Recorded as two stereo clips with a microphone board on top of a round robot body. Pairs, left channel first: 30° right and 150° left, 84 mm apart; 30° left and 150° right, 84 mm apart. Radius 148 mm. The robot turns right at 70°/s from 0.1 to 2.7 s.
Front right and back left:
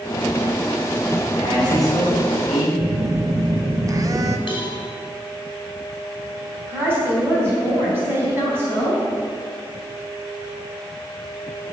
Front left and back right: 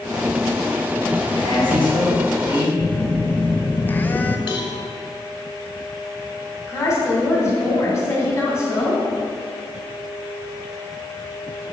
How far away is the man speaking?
About 4 m.